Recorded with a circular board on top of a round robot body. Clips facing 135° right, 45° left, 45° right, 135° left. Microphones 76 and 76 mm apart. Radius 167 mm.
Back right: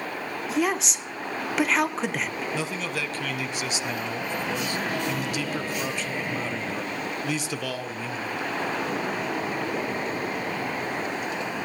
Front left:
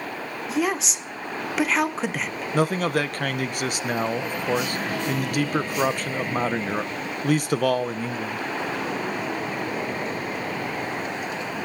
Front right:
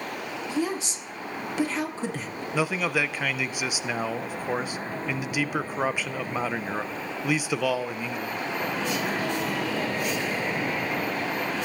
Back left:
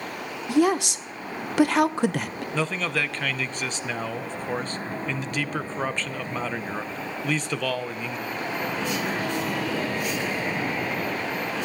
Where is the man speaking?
35° left, 0.6 m.